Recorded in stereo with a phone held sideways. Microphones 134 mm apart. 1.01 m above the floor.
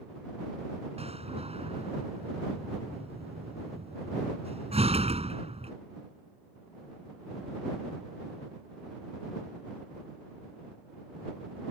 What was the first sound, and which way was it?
A door slam, 50° right (ahead or behind).